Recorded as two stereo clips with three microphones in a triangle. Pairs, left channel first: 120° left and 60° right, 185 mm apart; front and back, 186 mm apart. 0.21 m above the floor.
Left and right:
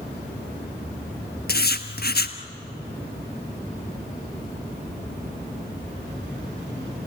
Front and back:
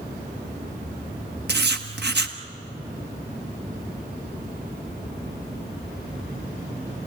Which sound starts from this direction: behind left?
Writing, at 1.5 s.